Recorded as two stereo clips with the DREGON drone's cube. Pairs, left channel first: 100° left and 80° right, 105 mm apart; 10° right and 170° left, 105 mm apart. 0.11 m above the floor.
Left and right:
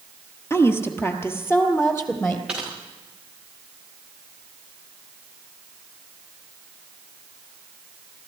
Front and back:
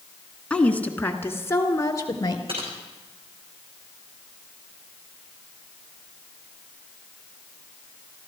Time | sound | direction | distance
0.5 | a woman speaking | 60° left | 1.4 m
2.5 | typing on a keyboard | 160° right | 4.5 m